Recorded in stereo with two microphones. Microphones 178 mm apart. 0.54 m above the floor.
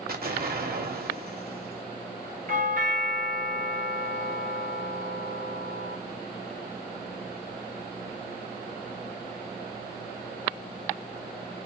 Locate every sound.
0.1 s an explosion: 65° right (ahead or behind), 1.1 m
2.5 s a doorbell: 55° right (ahead or behind), 2 m